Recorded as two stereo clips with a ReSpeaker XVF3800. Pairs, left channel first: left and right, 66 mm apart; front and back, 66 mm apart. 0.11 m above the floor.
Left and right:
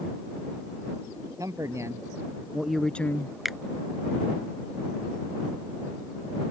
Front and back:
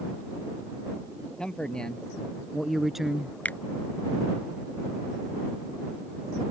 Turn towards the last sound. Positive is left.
turn(degrees=-5)